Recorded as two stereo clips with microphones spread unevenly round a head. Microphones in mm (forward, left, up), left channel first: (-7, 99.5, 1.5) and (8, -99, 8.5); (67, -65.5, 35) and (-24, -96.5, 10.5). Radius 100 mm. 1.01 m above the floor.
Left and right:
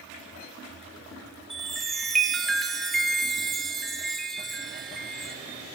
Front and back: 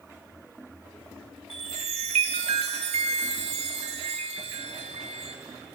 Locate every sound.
1.5 s a chime: 175° right, 0.8 m